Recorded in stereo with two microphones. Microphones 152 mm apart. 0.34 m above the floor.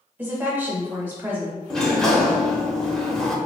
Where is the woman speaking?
15° right (ahead or behind), 1.0 m.